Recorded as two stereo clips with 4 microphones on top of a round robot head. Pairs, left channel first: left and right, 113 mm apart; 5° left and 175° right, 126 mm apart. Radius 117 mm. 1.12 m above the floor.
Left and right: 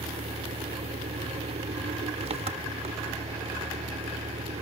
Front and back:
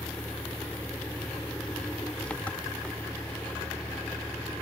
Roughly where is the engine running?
Right.